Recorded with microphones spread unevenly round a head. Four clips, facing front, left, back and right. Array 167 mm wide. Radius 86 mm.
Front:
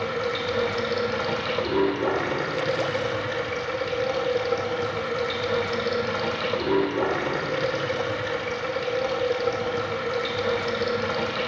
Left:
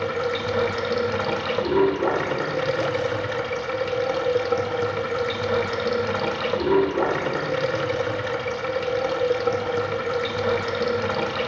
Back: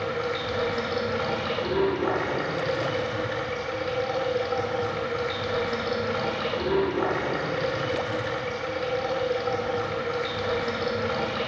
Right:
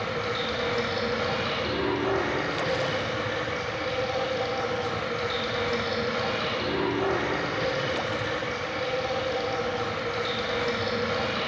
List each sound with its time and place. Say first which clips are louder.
0.0 s running water: left 5 dB, front 2 dB; 65° left, 1.5 m